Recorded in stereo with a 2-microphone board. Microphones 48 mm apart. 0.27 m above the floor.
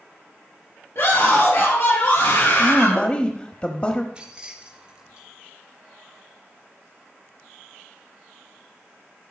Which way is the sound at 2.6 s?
25° left (ahead or behind).